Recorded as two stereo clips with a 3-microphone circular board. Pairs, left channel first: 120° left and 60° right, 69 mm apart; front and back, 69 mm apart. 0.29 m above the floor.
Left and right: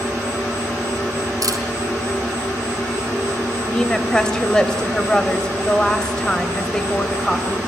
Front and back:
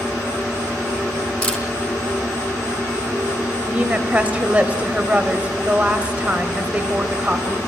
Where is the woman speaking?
175° left, 1.1 m.